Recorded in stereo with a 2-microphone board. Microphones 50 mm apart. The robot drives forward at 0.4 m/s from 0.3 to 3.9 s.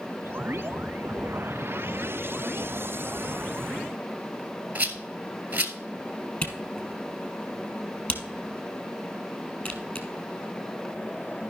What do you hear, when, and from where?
4.8 s a rattle: 30° right (ahead or behind), 1.3 m
6.4 s a camera shutter: 35° left (ahead or behind), 1.6 m